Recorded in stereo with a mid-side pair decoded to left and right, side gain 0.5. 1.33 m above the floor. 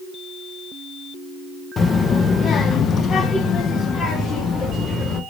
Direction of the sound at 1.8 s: 40° left.